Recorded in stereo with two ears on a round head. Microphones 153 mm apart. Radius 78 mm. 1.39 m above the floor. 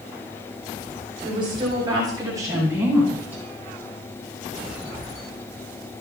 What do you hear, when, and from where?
1.2 s a woman speaking: 30° right (ahead or behind), 8.5 m; by 3.4 s 10° right (ahead or behind), 10 m